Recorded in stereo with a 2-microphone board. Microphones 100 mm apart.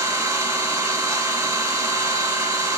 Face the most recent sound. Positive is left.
turn(degrees=-30)  # may be behind; listen again after turning